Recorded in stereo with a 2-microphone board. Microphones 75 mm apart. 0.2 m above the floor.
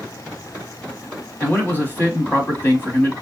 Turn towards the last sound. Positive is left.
turn(degrees=25)  # may be behind; listen again after turning